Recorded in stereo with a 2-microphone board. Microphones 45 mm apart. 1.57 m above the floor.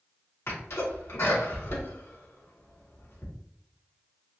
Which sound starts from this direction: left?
A sneeze, at 0.5 s.